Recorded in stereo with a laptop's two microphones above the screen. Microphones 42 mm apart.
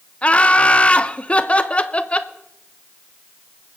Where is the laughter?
30° left (ahead or behind), 0.8 m.